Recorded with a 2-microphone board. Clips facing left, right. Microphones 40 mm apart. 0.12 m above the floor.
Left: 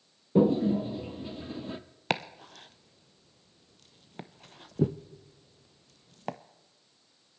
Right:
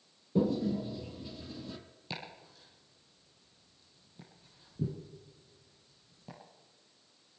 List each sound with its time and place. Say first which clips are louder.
0.3 s a toilet flushing: left 7 dB; 35° left (ahead or behind), 0.7 m
2.1 s chopping: left 12 dB; 75° left (ahead or behind), 0.7 m